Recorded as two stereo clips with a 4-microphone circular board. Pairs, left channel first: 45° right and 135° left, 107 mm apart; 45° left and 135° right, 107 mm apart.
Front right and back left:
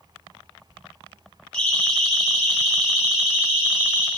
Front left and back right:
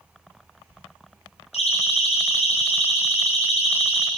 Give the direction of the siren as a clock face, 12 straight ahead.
11 o'clock.